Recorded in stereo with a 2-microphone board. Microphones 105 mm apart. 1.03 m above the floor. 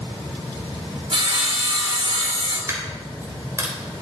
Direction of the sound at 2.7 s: 30° right (ahead or behind).